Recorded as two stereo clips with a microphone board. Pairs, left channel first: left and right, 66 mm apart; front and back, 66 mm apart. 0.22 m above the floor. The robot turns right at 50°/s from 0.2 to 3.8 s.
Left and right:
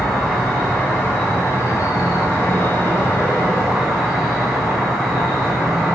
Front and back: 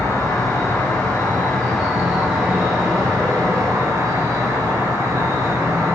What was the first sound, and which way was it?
An insect, straight ahead.